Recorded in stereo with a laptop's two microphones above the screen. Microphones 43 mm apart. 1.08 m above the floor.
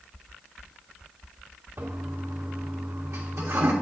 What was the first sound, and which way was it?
A toilet flushing, 80° right.